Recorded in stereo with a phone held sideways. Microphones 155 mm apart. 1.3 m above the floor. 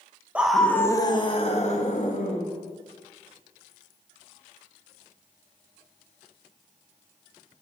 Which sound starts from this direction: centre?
A scream, at 0.3 s.